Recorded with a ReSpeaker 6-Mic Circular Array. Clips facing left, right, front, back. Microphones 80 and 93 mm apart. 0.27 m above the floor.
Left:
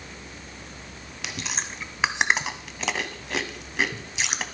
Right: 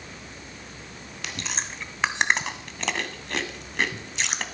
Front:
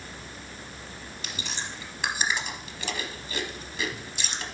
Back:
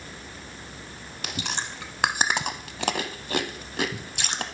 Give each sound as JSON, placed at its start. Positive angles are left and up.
{"t": 1.2, "sound": "chewing", "azimuth_deg": 175, "distance_m": 0.6}